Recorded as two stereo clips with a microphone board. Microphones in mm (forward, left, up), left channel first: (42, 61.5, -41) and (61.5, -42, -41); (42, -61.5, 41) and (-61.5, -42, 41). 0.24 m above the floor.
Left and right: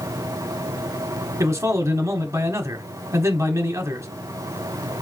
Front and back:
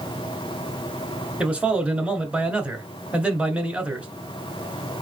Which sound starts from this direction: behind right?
A man speaking, at 1.4 s.